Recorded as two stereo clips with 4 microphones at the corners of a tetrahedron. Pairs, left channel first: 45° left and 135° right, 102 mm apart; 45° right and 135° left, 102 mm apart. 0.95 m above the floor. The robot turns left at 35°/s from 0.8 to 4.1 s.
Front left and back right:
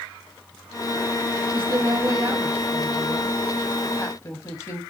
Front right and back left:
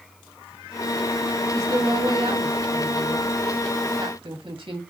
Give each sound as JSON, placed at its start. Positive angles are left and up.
{"t": 1.5, "sound": "a woman speaking", "azimuth_deg": -170, "distance_m": 1.5}